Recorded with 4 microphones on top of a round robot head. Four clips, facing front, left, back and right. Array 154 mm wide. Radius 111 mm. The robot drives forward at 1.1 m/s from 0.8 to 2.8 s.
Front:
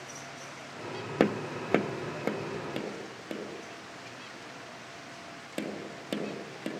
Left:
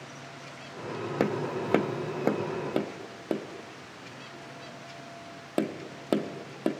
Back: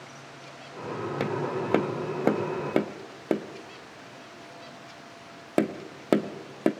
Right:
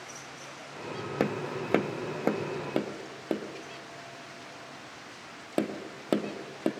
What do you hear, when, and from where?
1.2 s tapping: 10° left, 1.0 m; by 6.7 s 175° left, 1.6 m